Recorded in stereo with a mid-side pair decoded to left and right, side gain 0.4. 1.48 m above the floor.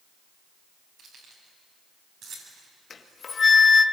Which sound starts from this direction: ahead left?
A flute, at 2.9 s.